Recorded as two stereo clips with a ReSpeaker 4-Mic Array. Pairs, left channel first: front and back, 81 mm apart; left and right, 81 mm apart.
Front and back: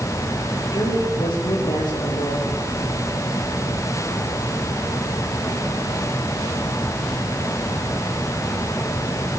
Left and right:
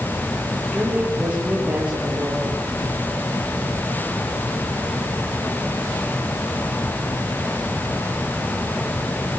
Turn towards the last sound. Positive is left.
turn(degrees=-15)